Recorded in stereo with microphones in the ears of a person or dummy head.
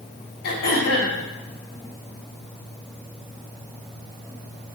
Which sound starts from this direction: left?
Throat clearing, at 0.4 s.